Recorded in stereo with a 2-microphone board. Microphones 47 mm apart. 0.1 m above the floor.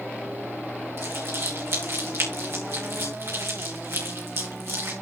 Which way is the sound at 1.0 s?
70° right (ahead or behind).